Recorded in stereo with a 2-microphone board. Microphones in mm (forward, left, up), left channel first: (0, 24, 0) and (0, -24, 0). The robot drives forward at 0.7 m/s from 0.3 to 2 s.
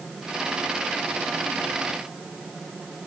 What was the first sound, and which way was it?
Only background noise.